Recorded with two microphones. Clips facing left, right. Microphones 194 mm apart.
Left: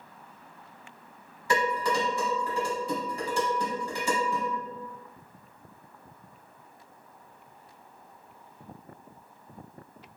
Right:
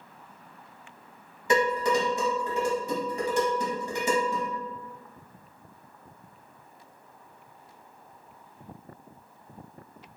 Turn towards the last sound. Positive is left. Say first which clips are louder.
# right 3 dB
turn(degrees=-20)  # may be behind; listen again after turning